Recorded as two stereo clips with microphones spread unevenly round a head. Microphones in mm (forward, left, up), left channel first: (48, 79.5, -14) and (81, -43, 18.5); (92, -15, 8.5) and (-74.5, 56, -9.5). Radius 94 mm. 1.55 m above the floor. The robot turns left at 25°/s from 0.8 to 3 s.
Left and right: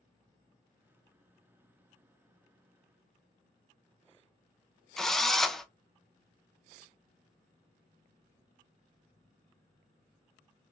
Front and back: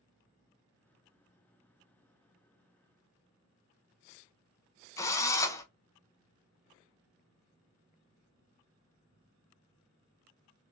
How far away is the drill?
About 0.5 m.